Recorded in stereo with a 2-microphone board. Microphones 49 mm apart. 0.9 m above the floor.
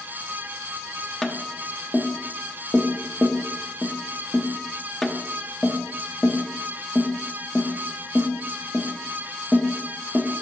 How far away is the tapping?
About 0.7 m.